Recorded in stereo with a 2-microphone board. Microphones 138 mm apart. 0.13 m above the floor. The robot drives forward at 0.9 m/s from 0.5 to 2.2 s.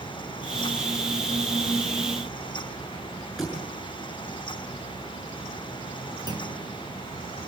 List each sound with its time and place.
3.4 s a thud: 5° right (ahead or behind), 7 m
6.3 s a clunk: 30° right (ahead or behind), 2.0 m